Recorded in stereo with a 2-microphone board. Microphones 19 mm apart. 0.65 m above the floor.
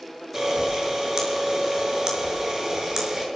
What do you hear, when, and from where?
0.3 s a camera shutter: 30° right (ahead or behind), 6.5 m